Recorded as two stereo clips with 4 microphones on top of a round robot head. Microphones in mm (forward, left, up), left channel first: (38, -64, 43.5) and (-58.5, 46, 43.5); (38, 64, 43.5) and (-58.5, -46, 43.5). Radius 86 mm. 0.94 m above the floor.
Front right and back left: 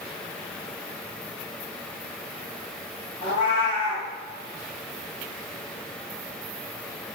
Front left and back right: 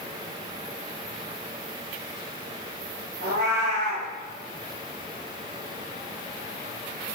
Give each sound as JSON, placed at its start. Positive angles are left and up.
{"t": 3.2, "sound": "a cat meowing", "azimuth_deg": -105, "distance_m": 3.5}